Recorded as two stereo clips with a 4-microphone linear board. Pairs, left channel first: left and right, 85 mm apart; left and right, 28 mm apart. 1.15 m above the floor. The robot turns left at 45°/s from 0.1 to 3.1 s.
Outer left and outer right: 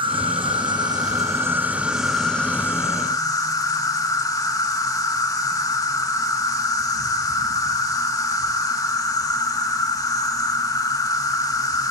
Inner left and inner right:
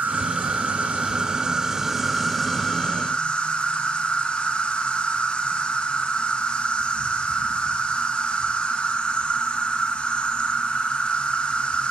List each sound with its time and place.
0.0 s an insect: 90° right, 1.0 m; by 11.9 s 135° left, 1.0 m